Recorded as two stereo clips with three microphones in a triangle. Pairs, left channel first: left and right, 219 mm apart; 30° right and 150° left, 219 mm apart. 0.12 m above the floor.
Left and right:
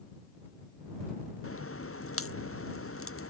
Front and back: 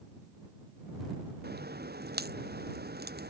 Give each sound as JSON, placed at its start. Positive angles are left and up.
{"t": 1.4, "sound": "a crack", "azimuth_deg": 105}